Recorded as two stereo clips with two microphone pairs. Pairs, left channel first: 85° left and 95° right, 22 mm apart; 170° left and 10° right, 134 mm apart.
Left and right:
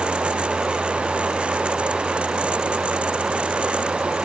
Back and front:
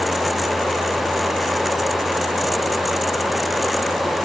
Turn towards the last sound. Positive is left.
No sound to turn to.